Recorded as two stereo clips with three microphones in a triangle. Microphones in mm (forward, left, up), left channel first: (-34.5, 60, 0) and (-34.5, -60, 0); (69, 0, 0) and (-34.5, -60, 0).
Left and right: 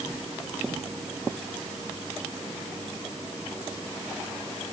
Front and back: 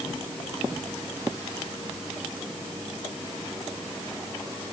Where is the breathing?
No breathing in this recording.